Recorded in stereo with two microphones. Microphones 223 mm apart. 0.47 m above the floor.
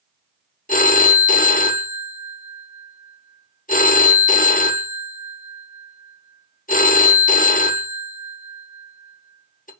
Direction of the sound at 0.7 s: 40° left (ahead or behind).